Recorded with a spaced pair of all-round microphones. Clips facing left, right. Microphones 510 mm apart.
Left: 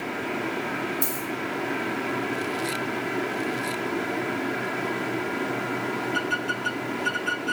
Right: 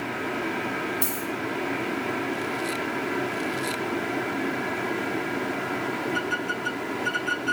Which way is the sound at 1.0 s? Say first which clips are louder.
Even; 20° right (ahead or behind).